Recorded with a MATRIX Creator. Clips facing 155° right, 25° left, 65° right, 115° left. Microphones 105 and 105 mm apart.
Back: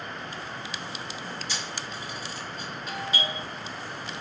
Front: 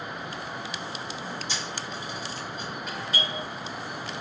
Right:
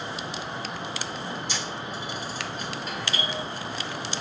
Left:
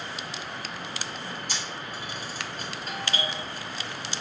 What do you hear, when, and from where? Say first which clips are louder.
1.5 s a camera shutter: front 1 dB, right 3 dB; 90° left, 1.9 m
2.9 s a doorbell: back 3 dB, left 2 dB; 115° left, 2.0 m